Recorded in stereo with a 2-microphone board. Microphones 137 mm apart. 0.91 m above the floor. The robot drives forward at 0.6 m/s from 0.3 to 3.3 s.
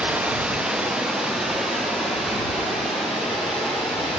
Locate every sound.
0.0 s running water: 10° right (ahead or behind), 0.9 m; by 4.2 s 5° right (ahead or behind), 2.5 m